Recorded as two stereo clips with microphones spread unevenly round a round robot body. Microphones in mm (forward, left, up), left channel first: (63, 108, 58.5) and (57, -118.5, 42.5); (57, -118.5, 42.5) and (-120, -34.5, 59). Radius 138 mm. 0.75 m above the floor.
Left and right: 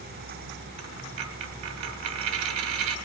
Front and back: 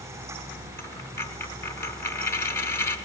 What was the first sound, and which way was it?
A dropped coin, 105° right.